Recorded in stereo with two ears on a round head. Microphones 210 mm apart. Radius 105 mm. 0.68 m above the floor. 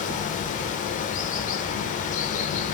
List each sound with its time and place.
0.0 s running water: 35° left (ahead or behind), 1.0 m